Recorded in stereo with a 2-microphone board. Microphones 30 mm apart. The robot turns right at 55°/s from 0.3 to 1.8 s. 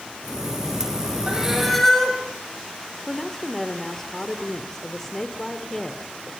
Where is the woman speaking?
10° left (ahead or behind), 2 m.